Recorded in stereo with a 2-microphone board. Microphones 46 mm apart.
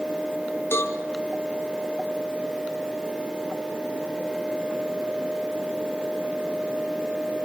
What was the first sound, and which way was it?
A cowbell, 65° left (ahead or behind).